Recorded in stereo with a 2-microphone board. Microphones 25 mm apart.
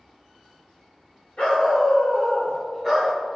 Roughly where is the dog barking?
Left.